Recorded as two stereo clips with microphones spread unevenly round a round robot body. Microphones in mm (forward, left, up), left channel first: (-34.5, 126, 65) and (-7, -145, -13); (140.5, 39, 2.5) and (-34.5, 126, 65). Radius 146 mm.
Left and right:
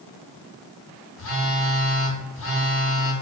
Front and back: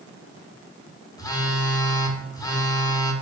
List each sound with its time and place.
1.2 s a phone buzzing: 45° left, 0.7 m